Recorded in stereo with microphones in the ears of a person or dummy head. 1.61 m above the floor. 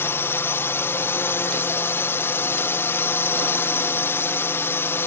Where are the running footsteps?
No running footsteps in this recording.